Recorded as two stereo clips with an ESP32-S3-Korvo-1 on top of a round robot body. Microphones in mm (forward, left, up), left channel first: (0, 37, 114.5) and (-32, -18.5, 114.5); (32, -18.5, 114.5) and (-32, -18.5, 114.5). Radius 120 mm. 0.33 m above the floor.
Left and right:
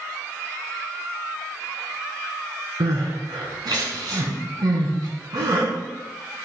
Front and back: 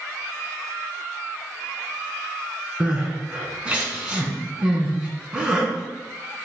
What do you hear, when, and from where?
2.8 s crying: 105° right, 2.5 m